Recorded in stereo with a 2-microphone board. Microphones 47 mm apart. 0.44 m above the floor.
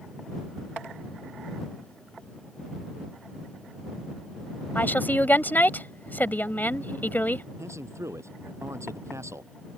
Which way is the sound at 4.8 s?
40° left (ahead or behind).